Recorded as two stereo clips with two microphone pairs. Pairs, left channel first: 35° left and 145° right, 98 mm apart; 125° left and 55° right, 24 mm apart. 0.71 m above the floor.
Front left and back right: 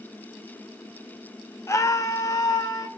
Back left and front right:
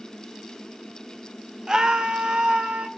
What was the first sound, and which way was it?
A scream, 10° right.